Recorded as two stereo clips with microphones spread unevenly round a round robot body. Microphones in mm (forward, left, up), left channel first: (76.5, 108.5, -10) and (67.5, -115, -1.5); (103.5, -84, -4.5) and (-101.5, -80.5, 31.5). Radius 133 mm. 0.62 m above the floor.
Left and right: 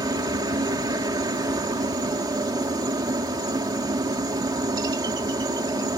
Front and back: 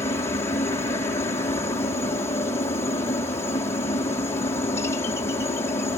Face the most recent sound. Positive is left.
turn(degrees=-40)